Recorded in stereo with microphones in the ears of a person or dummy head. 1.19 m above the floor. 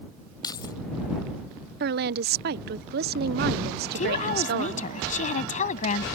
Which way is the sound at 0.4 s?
25° left (ahead or behind).